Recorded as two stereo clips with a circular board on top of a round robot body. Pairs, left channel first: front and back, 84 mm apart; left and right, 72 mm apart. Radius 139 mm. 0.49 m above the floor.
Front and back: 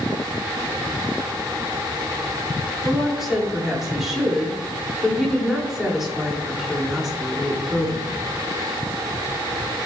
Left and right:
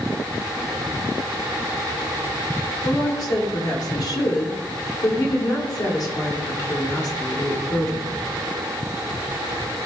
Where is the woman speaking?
95° left, 2.5 m.